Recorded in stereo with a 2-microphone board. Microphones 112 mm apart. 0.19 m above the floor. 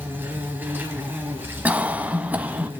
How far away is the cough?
About 1.0 m.